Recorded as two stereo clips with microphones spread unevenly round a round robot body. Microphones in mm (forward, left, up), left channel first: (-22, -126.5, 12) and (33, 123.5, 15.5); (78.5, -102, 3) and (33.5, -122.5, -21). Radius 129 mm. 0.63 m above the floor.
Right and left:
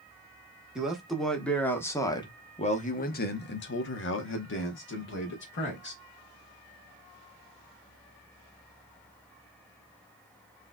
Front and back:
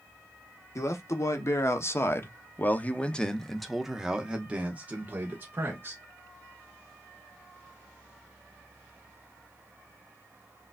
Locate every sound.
0.8 s a man speaking: 10° right, 1.5 m; by 6.0 s 145° right, 1.7 m